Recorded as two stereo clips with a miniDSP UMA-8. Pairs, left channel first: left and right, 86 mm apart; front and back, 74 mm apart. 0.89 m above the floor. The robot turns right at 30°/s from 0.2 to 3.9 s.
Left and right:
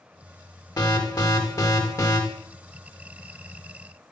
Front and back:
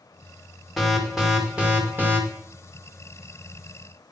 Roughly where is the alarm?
Left.